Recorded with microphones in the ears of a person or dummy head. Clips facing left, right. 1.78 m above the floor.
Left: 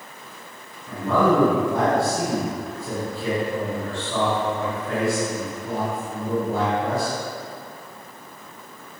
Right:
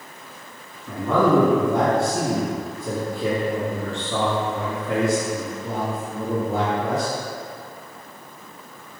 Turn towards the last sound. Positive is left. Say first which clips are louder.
# right 1 dB
turn(degrees=-80)